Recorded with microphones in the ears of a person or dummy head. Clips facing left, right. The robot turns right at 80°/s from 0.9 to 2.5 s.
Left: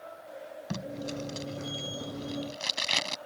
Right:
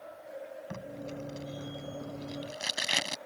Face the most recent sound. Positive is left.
turn(degrees=-5)  # may be behind; listen again after turning